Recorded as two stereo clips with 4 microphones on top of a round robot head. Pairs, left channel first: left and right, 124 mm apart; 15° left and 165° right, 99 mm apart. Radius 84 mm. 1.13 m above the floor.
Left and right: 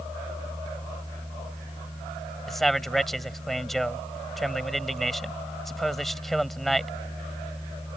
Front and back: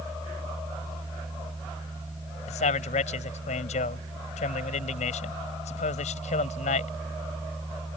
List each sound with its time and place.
2.5 s a man speaking: straight ahead